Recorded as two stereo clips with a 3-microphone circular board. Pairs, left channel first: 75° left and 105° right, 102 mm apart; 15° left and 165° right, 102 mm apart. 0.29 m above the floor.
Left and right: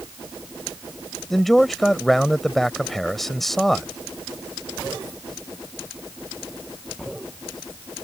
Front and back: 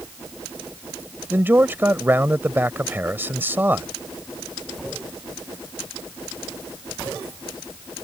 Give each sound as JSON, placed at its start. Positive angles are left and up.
{"t": 1.3, "sound": "a man speaking", "azimuth_deg": 160}